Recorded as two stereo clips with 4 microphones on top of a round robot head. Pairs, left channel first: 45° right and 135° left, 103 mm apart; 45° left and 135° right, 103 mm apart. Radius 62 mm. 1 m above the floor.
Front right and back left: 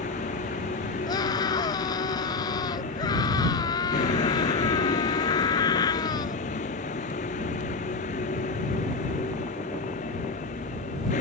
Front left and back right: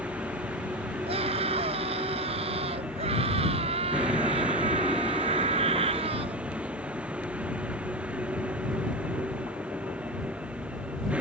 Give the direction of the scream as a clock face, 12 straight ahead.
3 o'clock.